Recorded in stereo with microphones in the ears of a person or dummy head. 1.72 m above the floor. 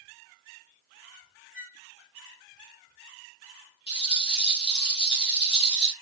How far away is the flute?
About 0.7 m.